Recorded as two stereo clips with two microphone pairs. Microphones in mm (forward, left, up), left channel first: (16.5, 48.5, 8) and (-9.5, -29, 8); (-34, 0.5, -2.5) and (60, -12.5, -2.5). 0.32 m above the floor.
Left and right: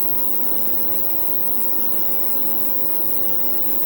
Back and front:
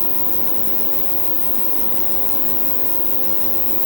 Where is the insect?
145° left.